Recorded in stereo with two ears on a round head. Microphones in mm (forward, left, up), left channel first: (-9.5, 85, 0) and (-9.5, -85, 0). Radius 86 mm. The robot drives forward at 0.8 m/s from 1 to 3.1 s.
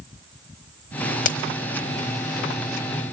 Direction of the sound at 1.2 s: 40° left (ahead or behind).